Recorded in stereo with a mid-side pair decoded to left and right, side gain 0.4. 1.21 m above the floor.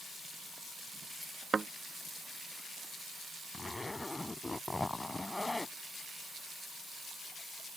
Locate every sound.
1.5 s a thud: 35° right
3.5 s a zipper: 20° left